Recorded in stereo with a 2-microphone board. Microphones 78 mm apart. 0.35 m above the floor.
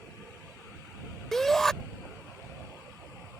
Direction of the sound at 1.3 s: 5° left (ahead or behind).